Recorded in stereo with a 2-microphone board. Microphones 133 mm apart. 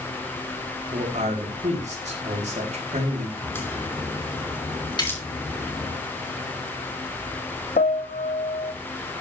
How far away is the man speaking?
About 4 m.